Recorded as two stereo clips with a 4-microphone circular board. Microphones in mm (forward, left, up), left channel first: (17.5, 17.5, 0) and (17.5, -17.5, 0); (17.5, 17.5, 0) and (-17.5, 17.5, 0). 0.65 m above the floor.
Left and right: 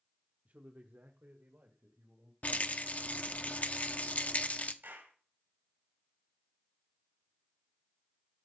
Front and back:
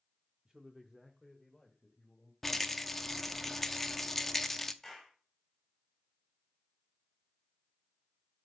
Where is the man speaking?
115° right, 1.0 m; by 2.3 s 70° right, 2.5 m.